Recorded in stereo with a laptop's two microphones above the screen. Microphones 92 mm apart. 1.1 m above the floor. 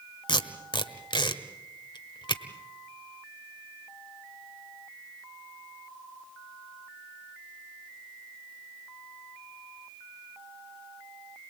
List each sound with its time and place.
0.3 s tape being pulled: 60° left (ahead or behind), 1.3 m